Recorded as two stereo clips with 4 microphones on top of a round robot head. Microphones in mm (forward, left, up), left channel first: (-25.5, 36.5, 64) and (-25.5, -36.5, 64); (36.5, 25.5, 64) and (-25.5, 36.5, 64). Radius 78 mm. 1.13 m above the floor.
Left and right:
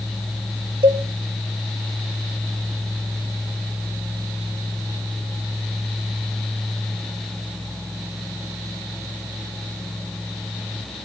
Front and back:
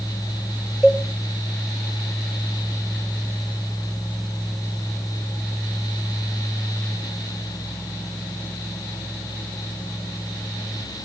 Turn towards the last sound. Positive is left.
turn(degrees=-95)